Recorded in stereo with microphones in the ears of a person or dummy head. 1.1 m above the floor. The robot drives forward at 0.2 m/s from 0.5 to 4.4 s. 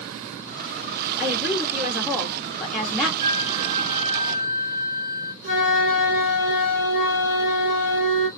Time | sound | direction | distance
1.2 | a woman speaking | centre (ahead or behind) | 1.1 m
3.2 | a flute | 30° right (ahead or behind) | 3.5 m
5.4 | a flute | 60° right (ahead or behind) | 3 m